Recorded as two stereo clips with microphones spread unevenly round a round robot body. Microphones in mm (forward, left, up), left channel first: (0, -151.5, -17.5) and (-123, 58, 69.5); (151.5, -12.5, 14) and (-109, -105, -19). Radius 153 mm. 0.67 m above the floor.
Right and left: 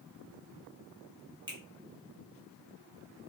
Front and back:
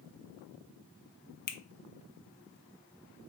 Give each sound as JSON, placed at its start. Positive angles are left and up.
{"t": 1.5, "sound": "a finger snap", "azimuth_deg": 40, "distance_m": 0.6}